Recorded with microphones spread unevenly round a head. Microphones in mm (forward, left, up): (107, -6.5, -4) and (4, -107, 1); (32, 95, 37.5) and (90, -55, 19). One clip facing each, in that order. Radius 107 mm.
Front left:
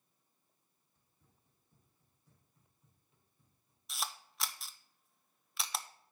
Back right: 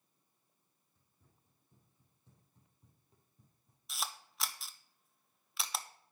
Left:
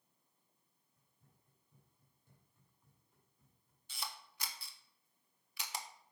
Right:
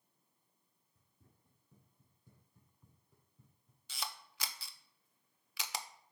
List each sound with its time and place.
0.9 s running footsteps: 55° right, 4.5 m; by 3.8 s 110° right, 2.5 m
3.9 s a camera shutter: 45° right, 0.8 m